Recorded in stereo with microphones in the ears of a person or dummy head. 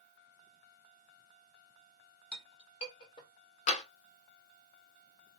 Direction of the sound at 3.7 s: 45° left (ahead or behind).